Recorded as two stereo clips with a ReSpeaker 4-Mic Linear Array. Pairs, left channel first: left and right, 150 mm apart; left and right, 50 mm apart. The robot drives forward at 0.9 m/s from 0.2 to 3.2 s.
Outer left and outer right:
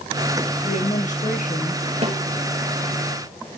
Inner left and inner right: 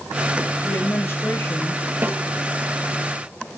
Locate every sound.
0.6 s a woman speaking: 50° left (ahead or behind), 3.5 m; by 1.8 s 60° left (ahead or behind), 3 m
2.0 s a snare drum: 45° right (ahead or behind), 4.5 m